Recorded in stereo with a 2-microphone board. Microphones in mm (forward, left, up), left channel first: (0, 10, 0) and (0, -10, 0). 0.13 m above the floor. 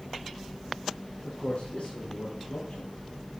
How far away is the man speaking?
About 5 m.